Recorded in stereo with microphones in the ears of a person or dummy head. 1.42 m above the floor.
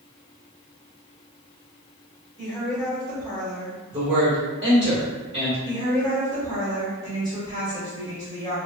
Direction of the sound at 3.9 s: 20° right (ahead or behind).